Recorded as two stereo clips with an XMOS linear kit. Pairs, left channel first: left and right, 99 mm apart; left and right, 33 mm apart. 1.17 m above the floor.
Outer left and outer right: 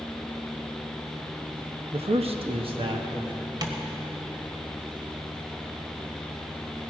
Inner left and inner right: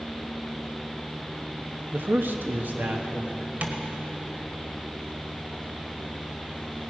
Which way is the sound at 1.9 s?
80° right.